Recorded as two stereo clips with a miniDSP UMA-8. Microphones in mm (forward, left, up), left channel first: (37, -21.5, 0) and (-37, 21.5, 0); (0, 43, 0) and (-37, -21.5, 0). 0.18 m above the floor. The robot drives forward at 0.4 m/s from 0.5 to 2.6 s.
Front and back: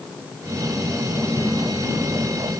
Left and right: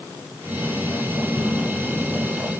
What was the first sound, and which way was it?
Only background noise.